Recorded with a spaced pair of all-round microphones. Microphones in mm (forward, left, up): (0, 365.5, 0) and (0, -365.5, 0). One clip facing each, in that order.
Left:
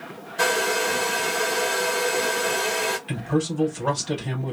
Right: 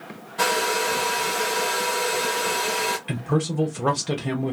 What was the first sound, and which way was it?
A hair dryer, 30° right (ahead or behind).